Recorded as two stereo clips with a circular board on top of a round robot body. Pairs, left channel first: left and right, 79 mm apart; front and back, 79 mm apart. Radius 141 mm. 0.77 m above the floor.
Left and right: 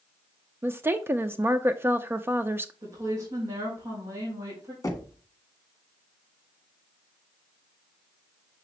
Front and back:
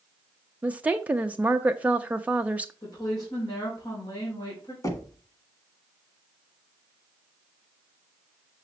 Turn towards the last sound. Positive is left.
turn(degrees=40)